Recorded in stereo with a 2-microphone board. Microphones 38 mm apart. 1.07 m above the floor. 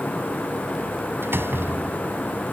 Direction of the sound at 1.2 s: 80° right.